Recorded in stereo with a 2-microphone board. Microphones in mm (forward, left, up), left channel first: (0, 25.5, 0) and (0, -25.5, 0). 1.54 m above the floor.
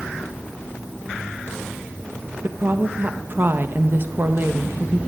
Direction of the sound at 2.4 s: 45° right (ahead or behind).